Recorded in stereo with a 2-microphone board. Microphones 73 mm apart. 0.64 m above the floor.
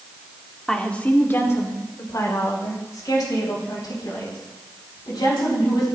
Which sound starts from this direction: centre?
A woman speaking, at 0.7 s.